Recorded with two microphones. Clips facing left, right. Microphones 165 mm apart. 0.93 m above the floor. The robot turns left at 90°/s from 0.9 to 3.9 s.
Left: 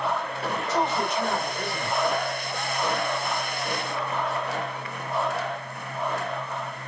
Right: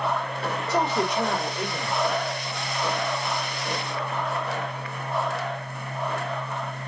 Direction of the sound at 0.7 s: 90° right.